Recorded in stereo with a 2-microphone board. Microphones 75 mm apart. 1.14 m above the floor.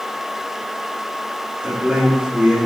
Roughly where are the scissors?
No scissors in this recording.